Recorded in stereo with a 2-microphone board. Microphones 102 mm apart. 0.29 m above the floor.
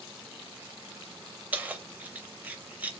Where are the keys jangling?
15° right (ahead or behind), 0.6 m.